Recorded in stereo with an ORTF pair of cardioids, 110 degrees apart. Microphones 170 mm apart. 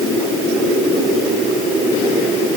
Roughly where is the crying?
No crying in this recording.